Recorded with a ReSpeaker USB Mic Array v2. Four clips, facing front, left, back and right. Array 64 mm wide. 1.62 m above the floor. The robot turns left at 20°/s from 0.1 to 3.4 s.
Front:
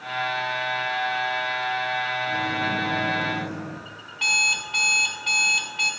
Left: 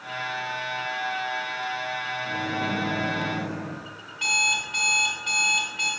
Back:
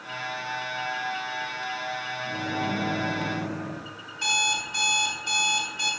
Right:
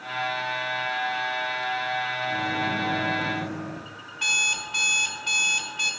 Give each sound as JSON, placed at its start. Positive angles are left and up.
{"t": 2.2, "sound": "a microwave", "azimuth_deg": 105, "distance_m": 1.8}
{"t": 4.1, "sound": "an alarm clock", "azimuth_deg": 5, "distance_m": 2.0}